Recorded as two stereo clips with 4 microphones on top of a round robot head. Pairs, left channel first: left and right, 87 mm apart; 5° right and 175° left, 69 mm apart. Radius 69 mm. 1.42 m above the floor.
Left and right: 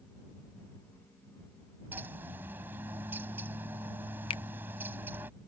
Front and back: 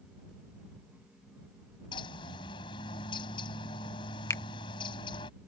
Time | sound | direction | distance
1.9 | a bird | 15° right | ?
4.3 | a finger snap | 45° left | ?